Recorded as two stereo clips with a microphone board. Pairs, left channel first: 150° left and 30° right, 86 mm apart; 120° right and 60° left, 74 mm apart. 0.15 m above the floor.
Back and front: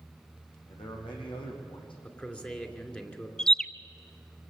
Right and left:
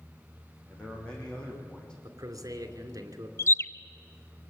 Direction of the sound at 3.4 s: 130° right.